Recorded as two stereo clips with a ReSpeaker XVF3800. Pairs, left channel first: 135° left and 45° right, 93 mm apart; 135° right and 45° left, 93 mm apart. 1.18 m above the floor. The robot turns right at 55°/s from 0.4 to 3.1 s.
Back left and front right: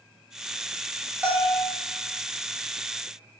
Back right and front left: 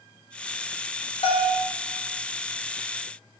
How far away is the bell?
About 0.6 m.